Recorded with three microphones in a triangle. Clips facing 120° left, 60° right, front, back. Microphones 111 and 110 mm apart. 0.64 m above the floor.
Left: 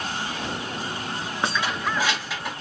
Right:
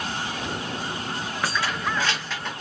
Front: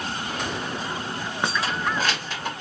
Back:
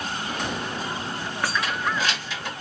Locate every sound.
1.4 s keys jangling: 65° left, 0.5 m; by 2.5 s 40° left, 1.3 m